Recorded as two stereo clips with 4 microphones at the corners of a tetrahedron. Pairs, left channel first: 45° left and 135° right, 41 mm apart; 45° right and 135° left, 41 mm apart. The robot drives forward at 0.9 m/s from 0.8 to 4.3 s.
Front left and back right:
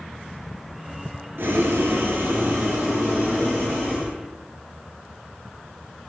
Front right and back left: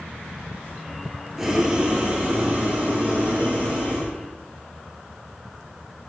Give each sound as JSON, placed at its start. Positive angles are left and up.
{"t": 1.4, "sound": "boiling", "azimuth_deg": -145, "distance_m": 0.9}